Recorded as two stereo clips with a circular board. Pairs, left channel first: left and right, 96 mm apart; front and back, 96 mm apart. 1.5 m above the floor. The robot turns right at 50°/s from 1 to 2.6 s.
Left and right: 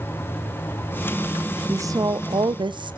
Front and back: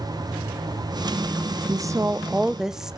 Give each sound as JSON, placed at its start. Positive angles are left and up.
{"t": 1.7, "sound": "a woman speaking", "azimuth_deg": -140, "distance_m": 0.5}